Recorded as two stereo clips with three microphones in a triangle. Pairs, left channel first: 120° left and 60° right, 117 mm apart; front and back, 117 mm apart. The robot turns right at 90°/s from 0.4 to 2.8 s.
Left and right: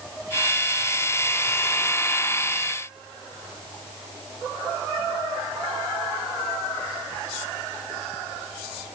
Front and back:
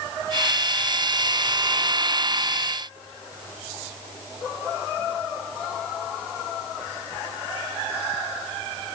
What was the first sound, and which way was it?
Only background noise.